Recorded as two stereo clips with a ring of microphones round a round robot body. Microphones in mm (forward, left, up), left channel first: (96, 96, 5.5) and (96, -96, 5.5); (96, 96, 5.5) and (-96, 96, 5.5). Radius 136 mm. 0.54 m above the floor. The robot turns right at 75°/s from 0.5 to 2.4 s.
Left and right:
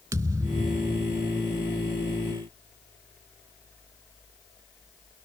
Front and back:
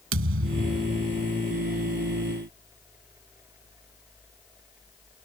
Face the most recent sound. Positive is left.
turn(degrees=-25)